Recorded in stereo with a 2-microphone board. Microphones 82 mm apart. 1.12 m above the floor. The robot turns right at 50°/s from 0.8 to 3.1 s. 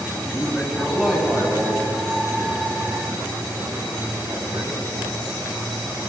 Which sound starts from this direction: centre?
A man speaking, at 0.2 s.